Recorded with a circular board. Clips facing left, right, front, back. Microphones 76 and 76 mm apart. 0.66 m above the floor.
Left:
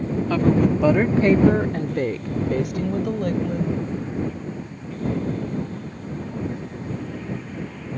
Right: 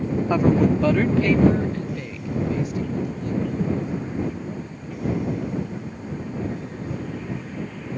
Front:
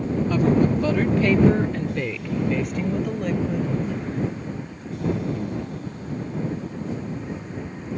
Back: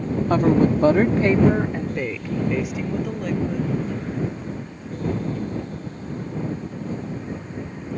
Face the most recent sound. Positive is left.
turn(degrees=90)